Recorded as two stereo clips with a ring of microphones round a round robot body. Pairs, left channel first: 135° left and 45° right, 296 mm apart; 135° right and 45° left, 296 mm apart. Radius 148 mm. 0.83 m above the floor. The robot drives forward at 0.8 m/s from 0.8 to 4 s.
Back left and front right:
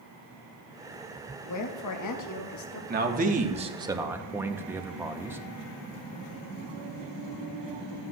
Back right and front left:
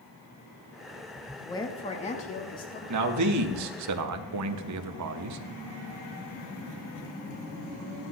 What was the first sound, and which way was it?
A woman speaking, 145° left.